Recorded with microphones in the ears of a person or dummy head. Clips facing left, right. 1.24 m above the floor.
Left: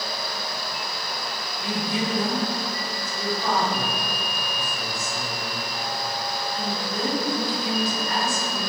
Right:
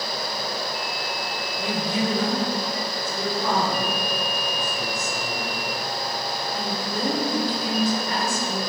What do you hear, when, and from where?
1.6 s a woman speaking: 85° right, 4 m